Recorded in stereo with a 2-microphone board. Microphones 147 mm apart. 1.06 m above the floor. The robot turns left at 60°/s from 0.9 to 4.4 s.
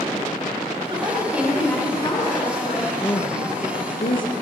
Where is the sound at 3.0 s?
20° left (ahead or behind), 1.3 m; by 4.3 s 65° left (ahead or behind), 1.3 m.